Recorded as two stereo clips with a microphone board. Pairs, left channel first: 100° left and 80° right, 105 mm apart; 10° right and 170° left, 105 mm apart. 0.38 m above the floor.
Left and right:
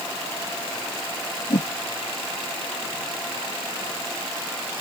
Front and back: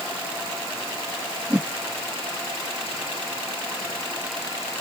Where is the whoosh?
95° left.